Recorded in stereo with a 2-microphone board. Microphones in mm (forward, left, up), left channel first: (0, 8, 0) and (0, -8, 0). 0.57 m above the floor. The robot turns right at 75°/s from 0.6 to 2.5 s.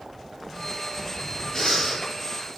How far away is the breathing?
About 0.9 m.